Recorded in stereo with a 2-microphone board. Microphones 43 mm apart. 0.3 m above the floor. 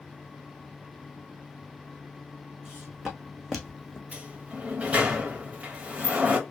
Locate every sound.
2.6 s footsteps: 15° right (ahead or behind), 1.2 m; by 4.0 s 25° left (ahead or behind), 1.0 m
4.1 s a sliding door: 30° right (ahead or behind), 0.8 m